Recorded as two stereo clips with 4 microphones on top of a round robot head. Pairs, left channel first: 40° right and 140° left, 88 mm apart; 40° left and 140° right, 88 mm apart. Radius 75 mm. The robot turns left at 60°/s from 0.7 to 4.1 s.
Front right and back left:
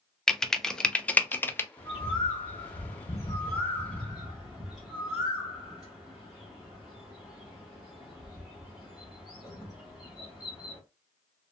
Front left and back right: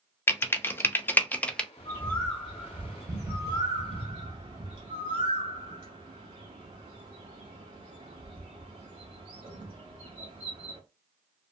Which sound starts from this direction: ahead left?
Typing on a keyboard, at 0.3 s.